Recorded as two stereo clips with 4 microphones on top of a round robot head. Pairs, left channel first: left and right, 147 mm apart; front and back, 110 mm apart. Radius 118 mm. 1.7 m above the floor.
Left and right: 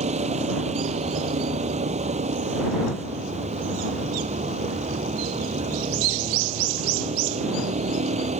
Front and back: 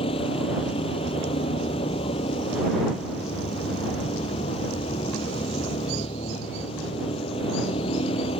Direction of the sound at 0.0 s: 50° right.